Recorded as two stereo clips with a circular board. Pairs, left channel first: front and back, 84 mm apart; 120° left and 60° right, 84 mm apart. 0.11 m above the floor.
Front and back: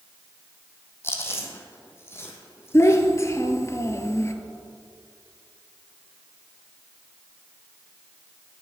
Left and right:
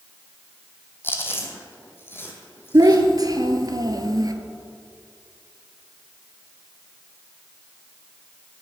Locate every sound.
1.0 s chewing: 60° left, 1.4 m
2.7 s a child speaking: 40° right, 1.1 m